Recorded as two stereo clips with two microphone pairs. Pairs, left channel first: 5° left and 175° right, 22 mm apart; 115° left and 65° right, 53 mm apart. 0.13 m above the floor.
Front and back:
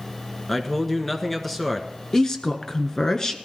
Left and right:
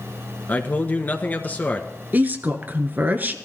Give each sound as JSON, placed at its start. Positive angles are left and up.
{"t": 0.5, "sound": "a man speaking", "azimuth_deg": 80, "distance_m": 1.6}
{"t": 2.1, "sound": "a woman speaking", "azimuth_deg": -30, "distance_m": 1.5}